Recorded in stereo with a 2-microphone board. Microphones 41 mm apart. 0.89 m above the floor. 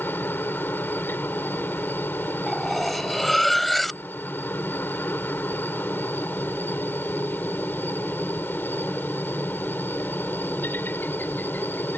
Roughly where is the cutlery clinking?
Centre.